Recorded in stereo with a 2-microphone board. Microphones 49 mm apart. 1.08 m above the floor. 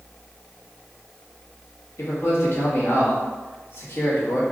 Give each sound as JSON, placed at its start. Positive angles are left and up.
{"t": 2.0, "sound": "a man speaking", "side_deg": 60, "distance_m": 1.9}